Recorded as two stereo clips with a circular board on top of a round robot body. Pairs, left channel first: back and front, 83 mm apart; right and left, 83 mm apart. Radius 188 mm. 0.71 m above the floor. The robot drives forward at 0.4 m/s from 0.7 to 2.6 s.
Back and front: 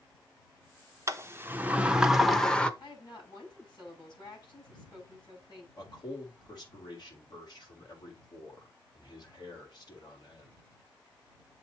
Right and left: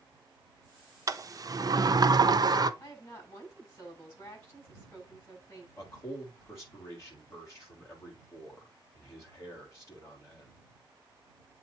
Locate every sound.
1.1 s a sliding door: 50° left, 1.0 m; by 2.7 s 105° left, 0.8 m
2.8 s a woman speaking: 145° right, 6.5 m
5.8 s a man speaking: 145° right, 3.5 m